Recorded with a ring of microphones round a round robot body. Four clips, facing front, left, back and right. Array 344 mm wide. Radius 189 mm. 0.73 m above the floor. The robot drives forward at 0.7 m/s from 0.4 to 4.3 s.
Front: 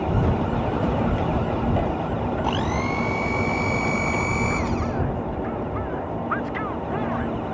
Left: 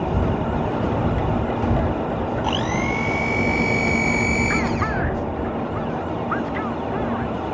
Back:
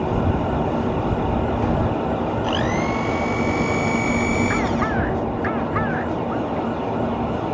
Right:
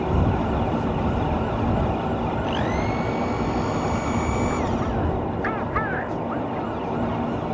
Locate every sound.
2.4 s a blender: 115° left; by 5.0 s 125° left